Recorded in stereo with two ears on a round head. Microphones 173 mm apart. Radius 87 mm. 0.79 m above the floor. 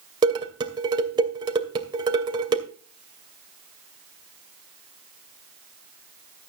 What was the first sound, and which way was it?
Dishes clattering, 25° right (ahead or behind).